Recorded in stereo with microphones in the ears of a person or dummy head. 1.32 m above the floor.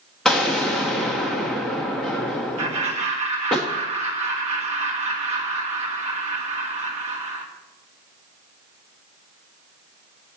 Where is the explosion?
Centre (ahead or behind), 0.9 m.